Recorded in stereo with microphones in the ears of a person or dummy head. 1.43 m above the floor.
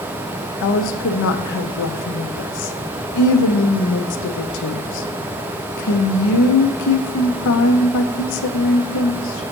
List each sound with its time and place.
0.6 s a woman speaking: 70° left (ahead or behind), 0.8 m